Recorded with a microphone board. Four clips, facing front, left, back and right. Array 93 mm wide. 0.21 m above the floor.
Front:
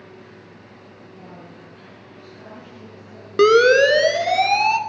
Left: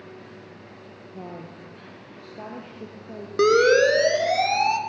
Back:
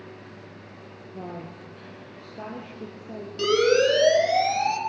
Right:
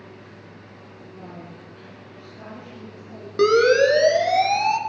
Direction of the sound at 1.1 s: 140° left.